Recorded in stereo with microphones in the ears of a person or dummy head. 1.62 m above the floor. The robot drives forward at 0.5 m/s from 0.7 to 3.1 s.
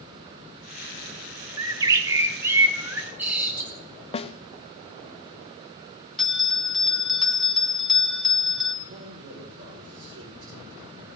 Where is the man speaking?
75° right (ahead or behind), 4.5 m.